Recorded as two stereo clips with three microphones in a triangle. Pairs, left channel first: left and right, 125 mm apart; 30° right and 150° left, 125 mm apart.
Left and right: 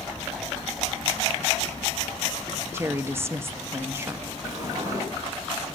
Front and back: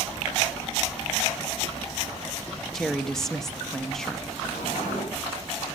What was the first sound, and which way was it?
A woman speaking, 110° right.